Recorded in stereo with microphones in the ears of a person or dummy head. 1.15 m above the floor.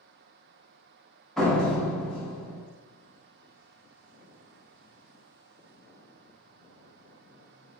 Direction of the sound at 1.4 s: 5° left (ahead or behind).